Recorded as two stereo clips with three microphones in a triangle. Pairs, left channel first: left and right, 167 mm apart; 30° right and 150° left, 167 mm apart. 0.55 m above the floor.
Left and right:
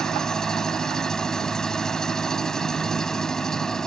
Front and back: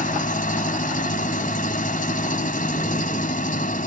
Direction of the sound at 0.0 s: 5° left.